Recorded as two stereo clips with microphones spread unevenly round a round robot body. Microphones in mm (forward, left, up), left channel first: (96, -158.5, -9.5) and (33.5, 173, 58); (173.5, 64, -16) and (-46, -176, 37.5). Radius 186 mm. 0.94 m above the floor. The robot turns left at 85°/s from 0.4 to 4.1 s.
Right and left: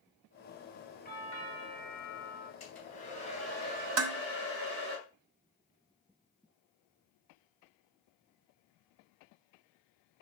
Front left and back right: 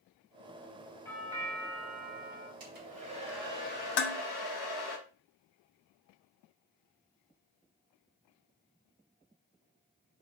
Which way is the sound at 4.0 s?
75° left.